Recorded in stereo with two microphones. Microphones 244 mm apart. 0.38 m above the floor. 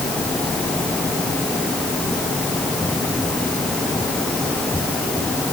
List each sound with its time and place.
Only background noise.